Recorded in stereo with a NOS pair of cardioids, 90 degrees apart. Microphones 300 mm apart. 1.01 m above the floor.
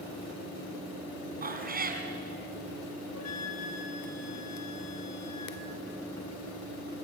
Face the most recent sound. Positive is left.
turn(degrees=60)